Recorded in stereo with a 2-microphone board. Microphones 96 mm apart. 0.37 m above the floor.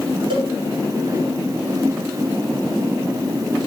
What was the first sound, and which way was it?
A cowbell, 65° right (ahead or behind).